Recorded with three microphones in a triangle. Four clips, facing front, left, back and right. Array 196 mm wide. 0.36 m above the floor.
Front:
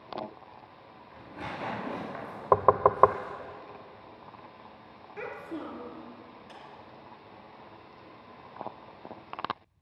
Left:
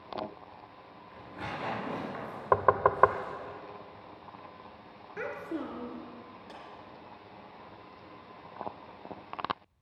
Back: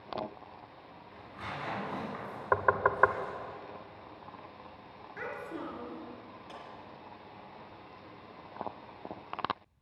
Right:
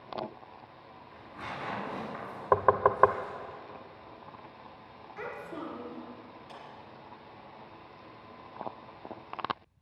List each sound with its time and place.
1.1 s tearing paper: 25° left, 6 m
2.5 s knocking: straight ahead, 0.6 m
5.2 s a child speaking: 75° left, 3 m
6.5 s a clap: 115° left, 4.5 m